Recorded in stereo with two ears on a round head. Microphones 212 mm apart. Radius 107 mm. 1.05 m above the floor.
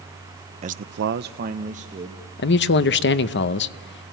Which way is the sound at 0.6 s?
30° right (ahead or behind).